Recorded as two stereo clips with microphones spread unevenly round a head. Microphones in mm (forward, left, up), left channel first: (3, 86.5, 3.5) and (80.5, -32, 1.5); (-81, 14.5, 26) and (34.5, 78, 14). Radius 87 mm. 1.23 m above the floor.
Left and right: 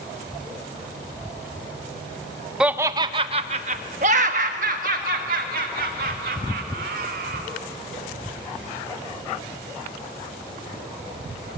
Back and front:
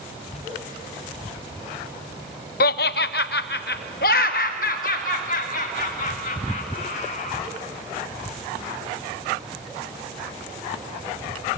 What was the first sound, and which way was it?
Laughter, 145° right.